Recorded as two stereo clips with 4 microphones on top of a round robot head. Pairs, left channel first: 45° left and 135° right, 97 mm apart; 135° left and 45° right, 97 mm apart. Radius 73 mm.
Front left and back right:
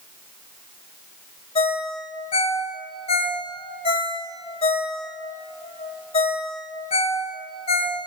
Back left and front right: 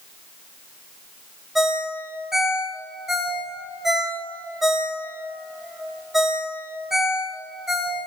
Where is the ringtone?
45° left, 2 m.